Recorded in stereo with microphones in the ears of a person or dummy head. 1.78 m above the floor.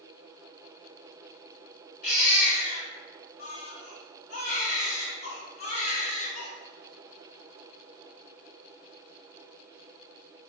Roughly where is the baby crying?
Left.